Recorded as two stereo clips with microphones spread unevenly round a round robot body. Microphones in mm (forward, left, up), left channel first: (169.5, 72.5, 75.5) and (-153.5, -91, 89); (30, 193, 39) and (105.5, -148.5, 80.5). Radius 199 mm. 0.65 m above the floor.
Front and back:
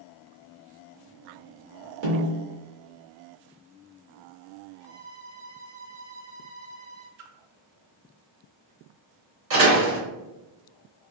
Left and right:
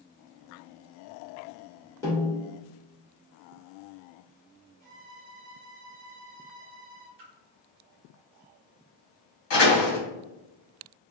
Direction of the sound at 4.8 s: 140° right.